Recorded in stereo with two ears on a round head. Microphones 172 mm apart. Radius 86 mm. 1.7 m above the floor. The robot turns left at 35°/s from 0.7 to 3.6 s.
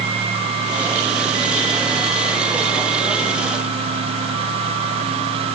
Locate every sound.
Only background noise.